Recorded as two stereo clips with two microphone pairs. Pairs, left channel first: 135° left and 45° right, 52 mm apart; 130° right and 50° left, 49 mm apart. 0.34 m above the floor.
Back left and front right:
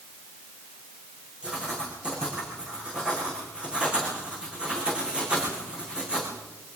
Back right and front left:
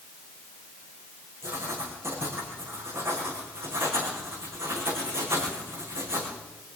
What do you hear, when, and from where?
1.4 s writing: 25° left, 7 m